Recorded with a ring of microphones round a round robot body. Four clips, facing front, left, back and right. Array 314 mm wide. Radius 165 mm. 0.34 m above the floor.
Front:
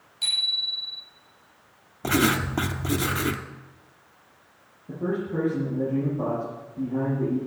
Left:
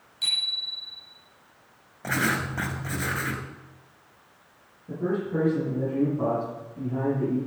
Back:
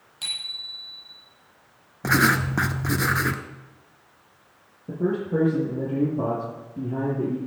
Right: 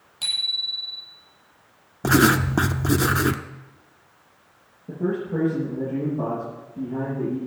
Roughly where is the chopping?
I don't hear chopping.